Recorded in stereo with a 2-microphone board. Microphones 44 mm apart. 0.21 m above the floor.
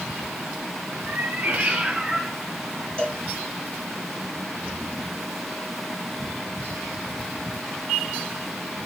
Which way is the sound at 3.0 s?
25° left (ahead or behind).